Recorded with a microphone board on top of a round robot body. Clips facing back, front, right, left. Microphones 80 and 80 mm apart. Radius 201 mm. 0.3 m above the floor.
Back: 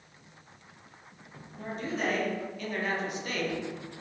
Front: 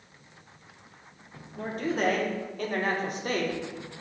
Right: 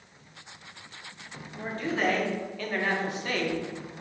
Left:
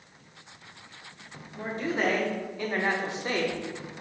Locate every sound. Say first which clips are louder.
1.6 s a man speaking: front 5 dB, even; 20° left, 2.5 m; by 3.9 s 35° left, 1.6 m